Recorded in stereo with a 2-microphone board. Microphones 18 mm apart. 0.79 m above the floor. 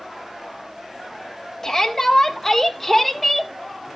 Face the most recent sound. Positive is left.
turn(degrees=0)  # may be behind; listen again after turning